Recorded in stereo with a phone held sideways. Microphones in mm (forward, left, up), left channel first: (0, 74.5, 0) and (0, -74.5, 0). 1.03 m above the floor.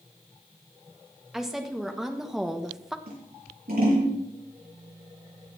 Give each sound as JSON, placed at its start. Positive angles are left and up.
{"t": 1.3, "sound": "a woman speaking", "side_deg": -5, "distance_m": 1.7}
{"t": 3.1, "sound": "scissors", "side_deg": -80, "distance_m": 7.5}